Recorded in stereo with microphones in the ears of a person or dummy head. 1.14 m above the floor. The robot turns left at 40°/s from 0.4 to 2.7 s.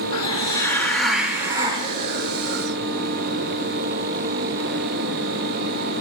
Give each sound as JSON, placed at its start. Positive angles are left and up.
{"t": 0.1, "sound": "a hiss", "azimuth_deg": 30, "distance_m": 1.9}